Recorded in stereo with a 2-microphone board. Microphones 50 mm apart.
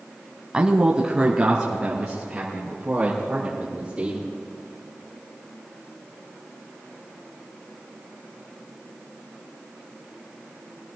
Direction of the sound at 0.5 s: 20° right (ahead or behind).